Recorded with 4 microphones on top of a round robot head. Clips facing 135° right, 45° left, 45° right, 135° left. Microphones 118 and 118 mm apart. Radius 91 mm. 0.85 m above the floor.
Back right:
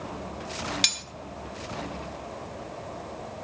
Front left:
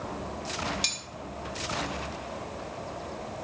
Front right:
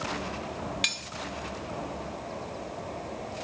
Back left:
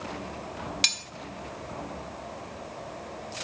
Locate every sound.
0.8 s cutlery clinking: 165° right, 0.8 m